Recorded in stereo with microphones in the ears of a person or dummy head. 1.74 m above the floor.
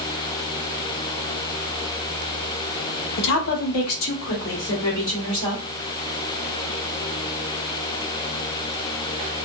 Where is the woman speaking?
60° left (ahead or behind), 0.7 m; by 5.6 s 40° left (ahead or behind), 1.6 m.